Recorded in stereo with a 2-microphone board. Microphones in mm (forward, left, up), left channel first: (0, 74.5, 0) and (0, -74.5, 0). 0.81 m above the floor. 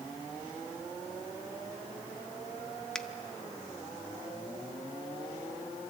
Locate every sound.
3.0 s a finger snap: 5° left (ahead or behind), 0.6 m